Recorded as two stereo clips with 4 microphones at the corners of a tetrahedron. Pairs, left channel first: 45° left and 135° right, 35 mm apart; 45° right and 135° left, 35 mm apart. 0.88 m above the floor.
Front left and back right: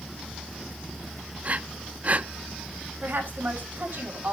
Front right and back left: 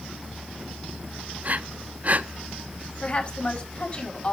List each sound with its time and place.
1.4 s breathing: straight behind, 0.6 m
3.0 s a woman speaking: 105° right, 5 m